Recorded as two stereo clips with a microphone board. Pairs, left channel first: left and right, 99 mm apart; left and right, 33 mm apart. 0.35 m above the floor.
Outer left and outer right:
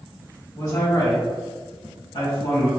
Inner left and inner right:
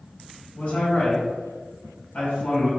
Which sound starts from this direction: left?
A man speaking, at 0.6 s.